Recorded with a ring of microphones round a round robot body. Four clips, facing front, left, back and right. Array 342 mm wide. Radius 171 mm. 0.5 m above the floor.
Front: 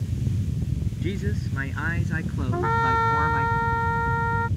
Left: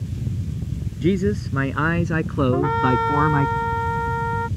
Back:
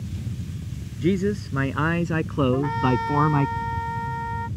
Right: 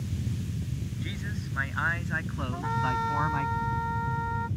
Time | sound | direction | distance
1.0 | a man speaking | 120° left | ?
2.5 | a trumpet | 70° left | ?